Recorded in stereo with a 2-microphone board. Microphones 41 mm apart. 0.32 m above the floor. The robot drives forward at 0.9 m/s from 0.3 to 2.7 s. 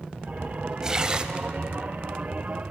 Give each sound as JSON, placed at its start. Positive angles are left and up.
{"t": 0.8, "sound": "tearing paper", "side_deg": -20, "distance_m": 0.9}